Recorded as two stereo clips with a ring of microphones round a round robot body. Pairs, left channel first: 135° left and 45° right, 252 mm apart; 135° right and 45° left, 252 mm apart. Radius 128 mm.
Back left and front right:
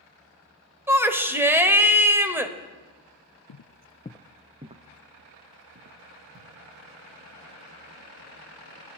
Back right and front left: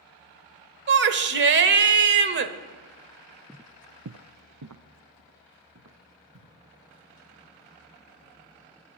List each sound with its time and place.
0.9 s a shout: 35° left, 1.0 m
3.5 s footsteps: 135° left, 0.6 m; by 6.5 s 5° left, 2.5 m